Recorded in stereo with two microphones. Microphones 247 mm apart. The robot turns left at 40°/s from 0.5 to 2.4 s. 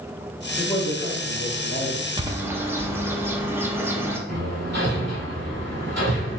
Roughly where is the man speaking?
Behind.